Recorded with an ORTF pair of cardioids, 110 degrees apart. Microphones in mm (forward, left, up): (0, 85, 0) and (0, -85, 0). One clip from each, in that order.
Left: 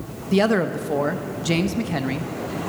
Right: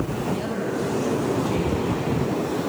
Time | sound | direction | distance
0.3 | a man speaking | 65° left | 0.7 m